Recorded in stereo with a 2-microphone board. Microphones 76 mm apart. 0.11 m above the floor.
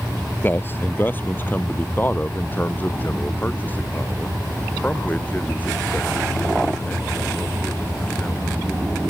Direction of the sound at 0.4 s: 30° left (ahead or behind).